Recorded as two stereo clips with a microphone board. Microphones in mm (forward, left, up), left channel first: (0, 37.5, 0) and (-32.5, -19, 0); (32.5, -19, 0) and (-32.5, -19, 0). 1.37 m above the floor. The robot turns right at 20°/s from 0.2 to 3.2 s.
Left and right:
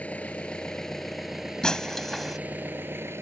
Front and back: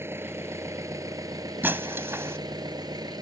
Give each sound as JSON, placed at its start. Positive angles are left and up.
{"t": 0.0, "sound": "an engine running", "azimuth_deg": 130}
{"t": 1.6, "sound": "breaking glass", "azimuth_deg": 135}